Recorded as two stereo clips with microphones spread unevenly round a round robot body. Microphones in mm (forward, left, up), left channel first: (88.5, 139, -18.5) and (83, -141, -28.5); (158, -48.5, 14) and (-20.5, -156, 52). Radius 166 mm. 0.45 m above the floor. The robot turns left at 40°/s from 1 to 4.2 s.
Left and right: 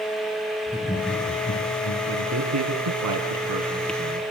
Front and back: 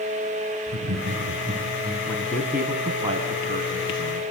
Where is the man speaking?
45° right, 3.5 m; by 4.2 s 130° right, 3.5 m.